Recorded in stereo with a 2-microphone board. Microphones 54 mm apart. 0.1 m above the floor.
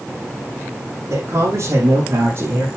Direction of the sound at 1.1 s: 65° right (ahead or behind).